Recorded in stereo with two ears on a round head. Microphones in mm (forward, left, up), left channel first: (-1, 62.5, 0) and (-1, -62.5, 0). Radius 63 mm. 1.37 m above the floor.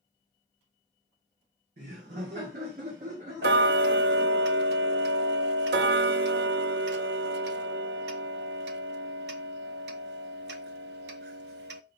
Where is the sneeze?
I don't hear a sneeze.